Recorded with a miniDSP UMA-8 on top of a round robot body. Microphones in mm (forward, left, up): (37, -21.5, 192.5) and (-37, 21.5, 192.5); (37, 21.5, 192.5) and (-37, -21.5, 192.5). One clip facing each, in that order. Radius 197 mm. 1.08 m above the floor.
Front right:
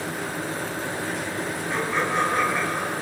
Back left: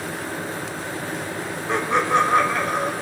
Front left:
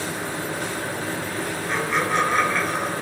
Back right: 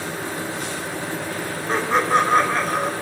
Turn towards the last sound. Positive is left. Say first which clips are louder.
# back left 6 dB, back right 5 dB
turn(degrees=160)